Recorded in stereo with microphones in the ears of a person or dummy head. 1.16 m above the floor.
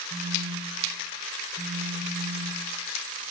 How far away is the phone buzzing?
About 7.5 m.